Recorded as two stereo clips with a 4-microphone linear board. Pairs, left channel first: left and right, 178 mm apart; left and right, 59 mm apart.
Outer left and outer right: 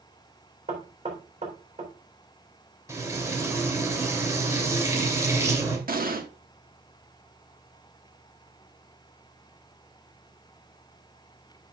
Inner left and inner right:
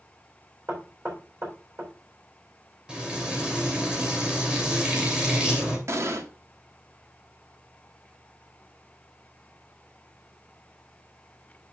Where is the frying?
15° right (ahead or behind), 2.5 m.